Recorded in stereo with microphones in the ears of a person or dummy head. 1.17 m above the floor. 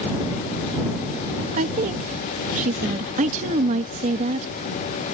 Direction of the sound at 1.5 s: 40° right (ahead or behind).